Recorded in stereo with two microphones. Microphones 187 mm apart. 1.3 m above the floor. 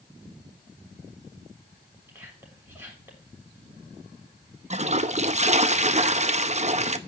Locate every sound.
2.1 s whispering: 15° right (ahead or behind), 7 m
4.7 s a toilet flushing: 40° right (ahead or behind), 0.8 m